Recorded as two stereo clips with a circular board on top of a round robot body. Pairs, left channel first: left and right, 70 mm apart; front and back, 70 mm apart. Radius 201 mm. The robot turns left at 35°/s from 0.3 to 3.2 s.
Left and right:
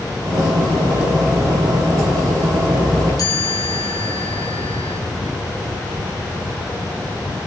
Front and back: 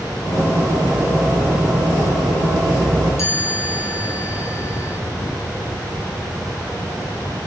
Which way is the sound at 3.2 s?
50° left.